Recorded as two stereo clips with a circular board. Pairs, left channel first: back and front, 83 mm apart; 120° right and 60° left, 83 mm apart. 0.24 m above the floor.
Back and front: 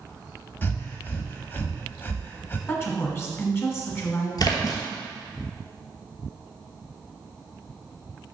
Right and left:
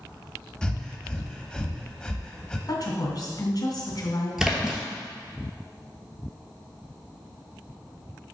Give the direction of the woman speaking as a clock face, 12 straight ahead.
4 o'clock.